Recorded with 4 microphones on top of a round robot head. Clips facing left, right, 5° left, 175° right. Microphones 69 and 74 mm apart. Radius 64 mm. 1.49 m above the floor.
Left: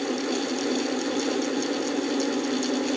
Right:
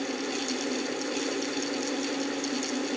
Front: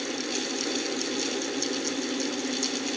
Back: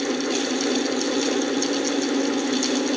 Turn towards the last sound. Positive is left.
No sound to turn to.